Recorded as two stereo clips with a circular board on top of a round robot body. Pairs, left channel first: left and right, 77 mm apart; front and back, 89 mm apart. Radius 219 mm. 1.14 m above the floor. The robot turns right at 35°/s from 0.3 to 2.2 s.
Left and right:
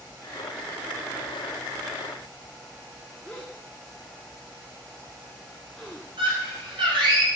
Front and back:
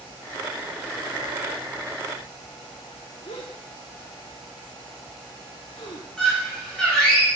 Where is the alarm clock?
No alarm clock in this recording.